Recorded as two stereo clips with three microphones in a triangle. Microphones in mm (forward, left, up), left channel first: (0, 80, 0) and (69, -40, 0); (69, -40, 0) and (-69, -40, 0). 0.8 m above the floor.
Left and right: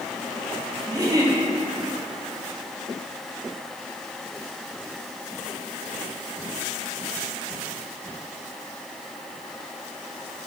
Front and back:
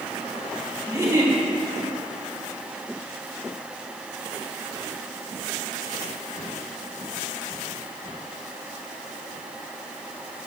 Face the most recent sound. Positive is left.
turn(degrees=-115)